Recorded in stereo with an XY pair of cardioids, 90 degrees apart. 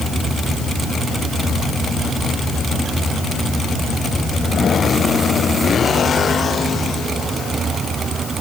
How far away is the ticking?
I don't hear ticking.